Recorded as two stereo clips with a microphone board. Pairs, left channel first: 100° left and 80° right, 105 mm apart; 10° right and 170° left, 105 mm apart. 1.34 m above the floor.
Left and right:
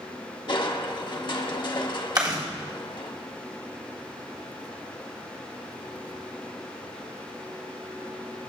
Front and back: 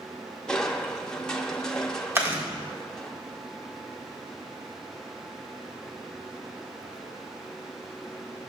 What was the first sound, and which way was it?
Crushing, 70° left.